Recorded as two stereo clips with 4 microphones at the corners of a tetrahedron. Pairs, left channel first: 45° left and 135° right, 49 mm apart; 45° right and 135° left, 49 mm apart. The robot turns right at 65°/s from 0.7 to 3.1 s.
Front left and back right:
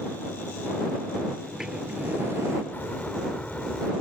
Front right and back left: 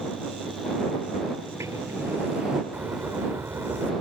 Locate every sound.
1.4 s a sliding door: 130° left; by 2.6 s 150° right
2.7 s a bird: 90° left; by 3.9 s 110° left